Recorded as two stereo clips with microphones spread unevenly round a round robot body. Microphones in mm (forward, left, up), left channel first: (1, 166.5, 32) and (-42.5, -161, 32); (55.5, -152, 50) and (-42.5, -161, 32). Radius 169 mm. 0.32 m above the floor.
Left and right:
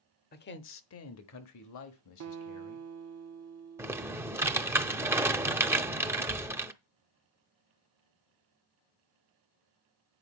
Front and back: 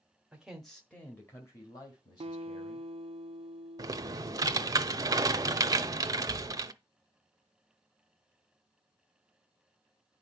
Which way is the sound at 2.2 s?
145° right.